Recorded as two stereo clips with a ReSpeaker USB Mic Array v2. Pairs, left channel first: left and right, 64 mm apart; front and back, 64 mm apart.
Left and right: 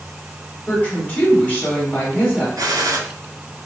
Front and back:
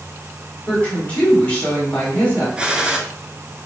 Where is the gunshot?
105° right, 0.5 m.